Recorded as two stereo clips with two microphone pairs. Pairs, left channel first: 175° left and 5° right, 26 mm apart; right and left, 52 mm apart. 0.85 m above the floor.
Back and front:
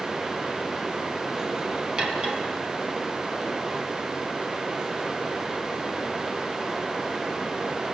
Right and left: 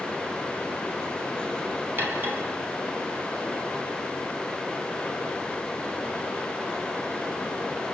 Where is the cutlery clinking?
40° left, 4.5 m.